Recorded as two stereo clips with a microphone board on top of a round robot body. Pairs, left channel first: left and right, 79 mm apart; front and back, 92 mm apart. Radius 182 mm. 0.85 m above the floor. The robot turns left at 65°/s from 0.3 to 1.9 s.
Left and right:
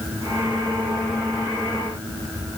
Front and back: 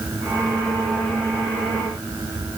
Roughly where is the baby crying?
I don't hear a baby crying.